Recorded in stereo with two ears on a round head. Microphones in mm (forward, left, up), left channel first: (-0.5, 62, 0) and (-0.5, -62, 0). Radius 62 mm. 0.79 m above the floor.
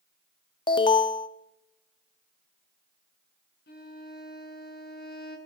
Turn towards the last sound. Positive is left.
turn(degrees=75)  # may be behind; listen again after turning